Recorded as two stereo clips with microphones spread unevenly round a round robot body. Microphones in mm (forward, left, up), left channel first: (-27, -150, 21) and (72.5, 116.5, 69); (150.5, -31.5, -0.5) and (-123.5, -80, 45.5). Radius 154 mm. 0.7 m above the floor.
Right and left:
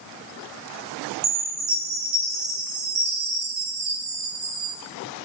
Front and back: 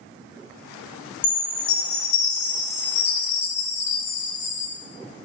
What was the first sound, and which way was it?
A chime, 45° left.